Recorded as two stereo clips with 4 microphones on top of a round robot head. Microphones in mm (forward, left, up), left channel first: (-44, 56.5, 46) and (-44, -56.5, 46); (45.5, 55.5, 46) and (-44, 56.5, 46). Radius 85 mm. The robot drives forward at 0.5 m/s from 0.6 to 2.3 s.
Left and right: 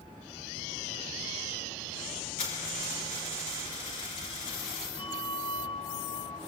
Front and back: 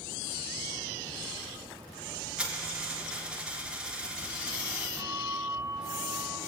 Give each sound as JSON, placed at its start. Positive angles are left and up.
{"t": 2.4, "sound": "a dropped coin", "azimuth_deg": 100, "distance_m": 4.0}
{"t": 5.0, "sound": "a bell", "azimuth_deg": 125, "distance_m": 2.5}